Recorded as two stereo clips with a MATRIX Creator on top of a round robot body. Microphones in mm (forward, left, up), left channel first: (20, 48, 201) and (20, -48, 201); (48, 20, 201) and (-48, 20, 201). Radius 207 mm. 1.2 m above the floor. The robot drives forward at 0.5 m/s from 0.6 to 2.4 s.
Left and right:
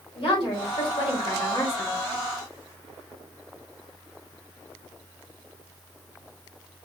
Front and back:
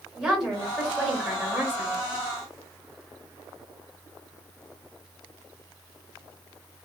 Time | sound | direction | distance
0.1 | a woman speaking | 95° left | 2.5 m